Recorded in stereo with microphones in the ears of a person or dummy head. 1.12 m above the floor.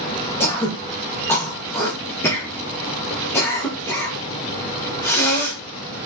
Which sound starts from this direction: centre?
Throat clearing, at 0.4 s.